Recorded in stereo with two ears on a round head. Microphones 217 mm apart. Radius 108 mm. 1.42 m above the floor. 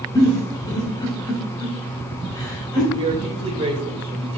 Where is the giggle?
20° left (ahead or behind), 4 m.